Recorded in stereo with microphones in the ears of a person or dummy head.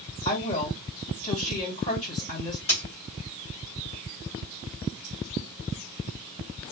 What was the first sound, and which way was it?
A woman speaking, 35° left (ahead or behind).